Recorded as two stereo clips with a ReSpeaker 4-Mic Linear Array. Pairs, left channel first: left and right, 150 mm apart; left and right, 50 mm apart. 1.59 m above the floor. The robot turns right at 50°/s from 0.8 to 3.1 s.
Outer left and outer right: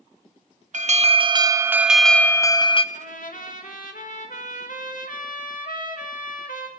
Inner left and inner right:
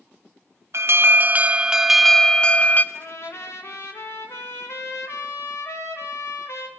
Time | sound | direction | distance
0.7 | an alarm | 60° right | 0.6 m
2.9 | a trumpet | 55° left (ahead or behind) | 1.7 m